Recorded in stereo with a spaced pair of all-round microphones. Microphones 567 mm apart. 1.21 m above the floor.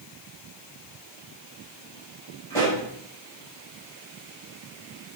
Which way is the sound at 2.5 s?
65° right (ahead or behind).